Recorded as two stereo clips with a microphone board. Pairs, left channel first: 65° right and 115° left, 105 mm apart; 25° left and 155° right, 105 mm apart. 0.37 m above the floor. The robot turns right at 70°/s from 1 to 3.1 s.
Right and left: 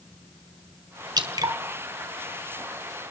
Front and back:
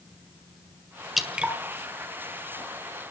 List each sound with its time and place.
1.2 s dripping: 115° left, 1.6 m; by 1.6 s 140° left, 1.6 m